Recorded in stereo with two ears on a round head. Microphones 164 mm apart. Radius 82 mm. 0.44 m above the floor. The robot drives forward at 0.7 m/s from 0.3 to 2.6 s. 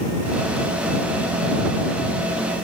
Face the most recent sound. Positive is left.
No sound to turn to.